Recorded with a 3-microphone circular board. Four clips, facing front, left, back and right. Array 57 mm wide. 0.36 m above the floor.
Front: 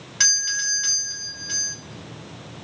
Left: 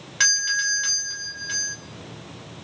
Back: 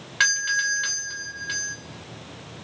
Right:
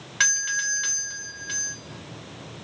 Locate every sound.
0.2 s a doorbell: 165° right, 1.7 m